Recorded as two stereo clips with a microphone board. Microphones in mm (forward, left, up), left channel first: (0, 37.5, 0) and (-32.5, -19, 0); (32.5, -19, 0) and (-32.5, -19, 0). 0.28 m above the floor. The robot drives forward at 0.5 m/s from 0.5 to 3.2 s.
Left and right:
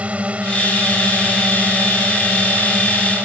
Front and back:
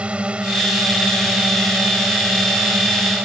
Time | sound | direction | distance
0.0 | a drone | 145° right | ?